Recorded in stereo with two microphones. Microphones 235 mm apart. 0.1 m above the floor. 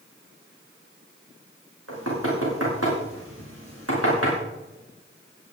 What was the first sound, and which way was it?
Knocking, 80° right.